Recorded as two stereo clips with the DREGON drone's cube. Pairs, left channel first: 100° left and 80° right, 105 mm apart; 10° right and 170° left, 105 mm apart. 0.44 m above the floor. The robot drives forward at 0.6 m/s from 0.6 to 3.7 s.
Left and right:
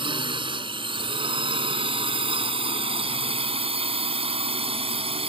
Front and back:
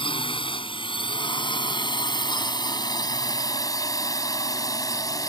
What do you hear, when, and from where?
0.0 s a drone: 45° right; by 5.3 s 65° right